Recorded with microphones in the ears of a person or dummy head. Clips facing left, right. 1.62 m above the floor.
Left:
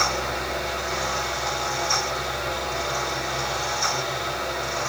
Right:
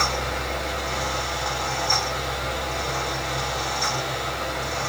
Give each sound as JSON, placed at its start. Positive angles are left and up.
{"t": 0.0, "sound": "a fan", "side_deg": -45, "distance_m": 3.5}